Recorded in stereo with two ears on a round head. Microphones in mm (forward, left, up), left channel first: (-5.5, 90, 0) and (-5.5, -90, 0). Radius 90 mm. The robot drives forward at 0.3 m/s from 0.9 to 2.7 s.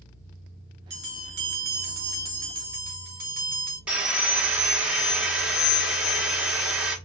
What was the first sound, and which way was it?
A bell, 55° right (ahead or behind).